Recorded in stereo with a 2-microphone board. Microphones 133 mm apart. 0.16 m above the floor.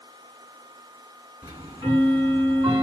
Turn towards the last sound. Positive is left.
turn(degrees=-25)  # may be behind; listen again after turning